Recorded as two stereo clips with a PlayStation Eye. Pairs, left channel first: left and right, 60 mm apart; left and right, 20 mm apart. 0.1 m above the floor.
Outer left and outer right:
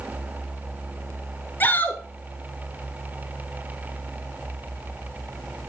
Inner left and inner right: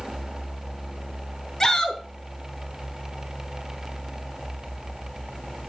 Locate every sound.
1.6 s a shout: 35° left (ahead or behind), 1.7 m